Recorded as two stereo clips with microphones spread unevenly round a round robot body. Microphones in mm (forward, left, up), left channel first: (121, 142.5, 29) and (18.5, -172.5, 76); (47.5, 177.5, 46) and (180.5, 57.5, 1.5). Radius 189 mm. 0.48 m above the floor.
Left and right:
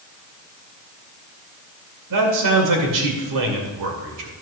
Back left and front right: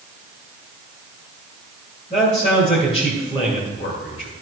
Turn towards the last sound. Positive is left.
turn(degrees=-145)